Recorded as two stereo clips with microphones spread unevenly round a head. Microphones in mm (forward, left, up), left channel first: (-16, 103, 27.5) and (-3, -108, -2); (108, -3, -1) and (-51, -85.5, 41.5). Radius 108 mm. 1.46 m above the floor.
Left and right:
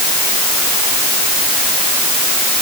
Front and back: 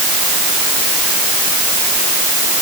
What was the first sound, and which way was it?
Only background noise.